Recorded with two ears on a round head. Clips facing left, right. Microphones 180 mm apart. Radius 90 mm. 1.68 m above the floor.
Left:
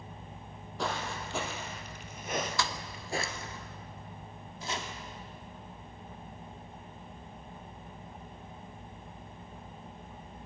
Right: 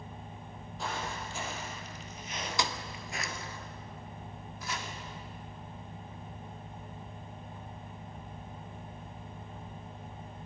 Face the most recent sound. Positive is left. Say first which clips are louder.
# left 2 dB
turn(degrees=25)  # may be behind; listen again after turning